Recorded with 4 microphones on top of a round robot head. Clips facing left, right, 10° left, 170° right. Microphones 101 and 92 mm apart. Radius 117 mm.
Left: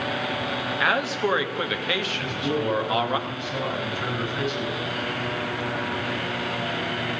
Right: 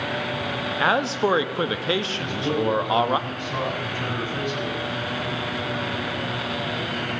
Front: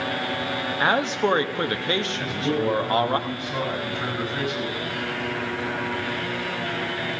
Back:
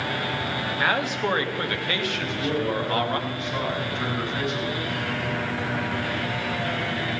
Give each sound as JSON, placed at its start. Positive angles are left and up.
{"t": 0.8, "sound": "a man speaking", "azimuth_deg": -40, "distance_m": 1.1}
{"t": 2.2, "sound": "a man speaking", "azimuth_deg": -80, "distance_m": 7.5}